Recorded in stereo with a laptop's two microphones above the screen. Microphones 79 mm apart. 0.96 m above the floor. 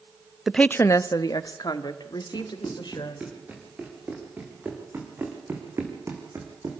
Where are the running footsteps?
15° right (ahead or behind), 5 m; by 6.8 s 45° right (ahead or behind), 3 m.